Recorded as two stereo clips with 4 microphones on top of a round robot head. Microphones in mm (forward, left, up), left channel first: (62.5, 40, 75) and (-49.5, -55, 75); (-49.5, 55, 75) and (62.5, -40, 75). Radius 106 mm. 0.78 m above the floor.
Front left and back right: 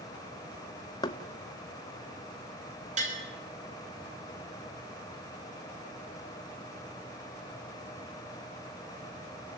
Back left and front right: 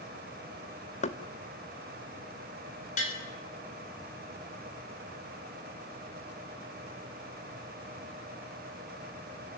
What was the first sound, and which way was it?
Knocking, 100° left.